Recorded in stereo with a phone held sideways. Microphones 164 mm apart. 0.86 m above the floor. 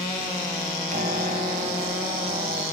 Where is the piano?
50° right (ahead or behind), 1.3 m.